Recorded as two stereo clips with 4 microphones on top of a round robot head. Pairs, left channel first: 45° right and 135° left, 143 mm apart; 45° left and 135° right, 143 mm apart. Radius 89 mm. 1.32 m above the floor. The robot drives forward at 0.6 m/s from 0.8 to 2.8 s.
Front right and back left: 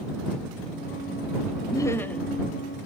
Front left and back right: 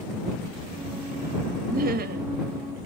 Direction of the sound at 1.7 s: 110° right.